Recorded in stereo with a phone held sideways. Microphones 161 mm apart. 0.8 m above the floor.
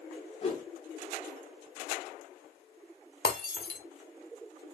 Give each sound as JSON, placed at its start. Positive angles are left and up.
{"t": 0.4, "sound": "a whoosh", "side_deg": 40, "distance_m": 1.1}
{"t": 3.2, "sound": "breaking glass", "side_deg": 65, "distance_m": 0.9}